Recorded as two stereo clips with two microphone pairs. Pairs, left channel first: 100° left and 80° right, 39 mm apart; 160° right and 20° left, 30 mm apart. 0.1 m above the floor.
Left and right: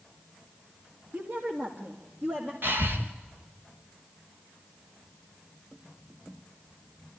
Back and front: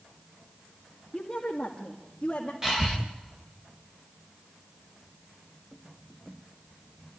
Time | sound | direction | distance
1.1 | a woman speaking | 85° right | 3 m
2.6 | breathing | 55° right | 3.5 m